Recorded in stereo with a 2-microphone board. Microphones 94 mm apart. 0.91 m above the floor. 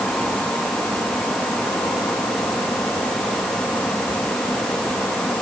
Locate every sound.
Only background noise.